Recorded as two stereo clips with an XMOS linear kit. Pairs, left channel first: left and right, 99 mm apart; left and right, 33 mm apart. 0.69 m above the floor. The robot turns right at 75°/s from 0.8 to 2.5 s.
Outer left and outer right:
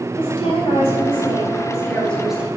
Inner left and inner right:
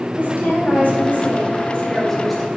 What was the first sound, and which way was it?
A woman speaking, 70° left.